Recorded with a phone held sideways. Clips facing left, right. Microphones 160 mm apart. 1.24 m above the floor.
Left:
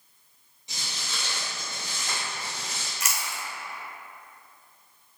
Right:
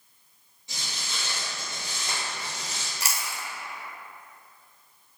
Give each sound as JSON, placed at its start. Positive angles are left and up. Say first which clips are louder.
{"t": 0.7, "sound": "footsteps", "louder": "even", "side_deg": 20, "distance_m": 1.4}
{"t": 3.0, "sound": "chewing", "louder": "even", "side_deg": -35, "distance_m": 0.6}